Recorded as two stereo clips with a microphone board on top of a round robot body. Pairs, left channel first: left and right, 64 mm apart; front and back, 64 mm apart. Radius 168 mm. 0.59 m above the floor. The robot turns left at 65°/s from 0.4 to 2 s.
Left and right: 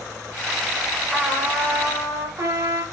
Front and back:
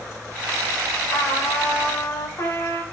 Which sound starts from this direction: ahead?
A trumpet, at 1.1 s.